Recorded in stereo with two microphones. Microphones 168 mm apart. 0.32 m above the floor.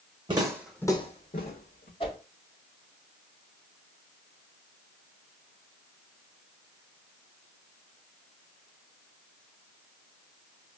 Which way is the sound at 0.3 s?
30° right (ahead or behind).